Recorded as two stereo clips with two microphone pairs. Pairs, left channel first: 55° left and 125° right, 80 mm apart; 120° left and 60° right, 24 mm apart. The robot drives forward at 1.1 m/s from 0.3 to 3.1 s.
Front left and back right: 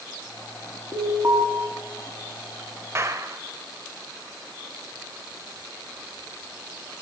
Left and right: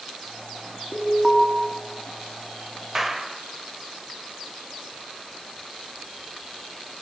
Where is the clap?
125° right, 1.1 m; by 3.4 s 135° right, 1.2 m.